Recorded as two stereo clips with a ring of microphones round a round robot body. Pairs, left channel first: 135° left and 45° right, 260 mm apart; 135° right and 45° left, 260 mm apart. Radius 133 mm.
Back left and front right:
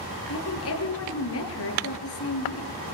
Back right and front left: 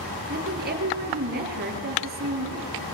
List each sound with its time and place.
0.3 s a woman speaking: 100° left, 6.5 m